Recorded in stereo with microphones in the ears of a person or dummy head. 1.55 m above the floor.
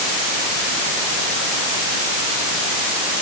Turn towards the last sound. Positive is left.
No sound to turn to.